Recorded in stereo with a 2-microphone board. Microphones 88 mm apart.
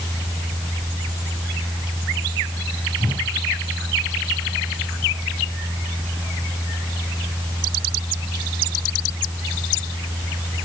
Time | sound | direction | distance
3.0 | a whoosh | 75° left (ahead or behind) | 8.5 m